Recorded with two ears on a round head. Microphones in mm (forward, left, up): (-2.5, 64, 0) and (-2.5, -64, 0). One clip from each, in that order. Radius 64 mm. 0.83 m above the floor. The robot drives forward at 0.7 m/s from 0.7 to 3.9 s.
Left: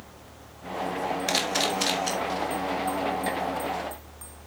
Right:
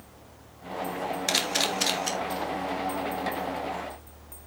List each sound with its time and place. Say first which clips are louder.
1.3 s a camera shutter: even; 20° right (ahead or behind), 1.4 m; by 2.1 s 15° right (ahead or behind), 1.9 m